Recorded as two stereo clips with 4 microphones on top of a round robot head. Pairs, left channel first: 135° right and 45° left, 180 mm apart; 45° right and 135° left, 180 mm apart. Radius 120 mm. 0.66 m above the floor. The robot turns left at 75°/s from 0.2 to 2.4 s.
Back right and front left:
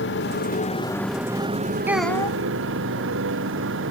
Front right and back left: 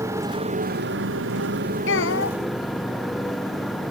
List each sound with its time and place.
0.0 s a motorcycle: 150° right; by 3.9 s 45° left
1.9 s a child speaking: 30° right; by 2.4 s 70° right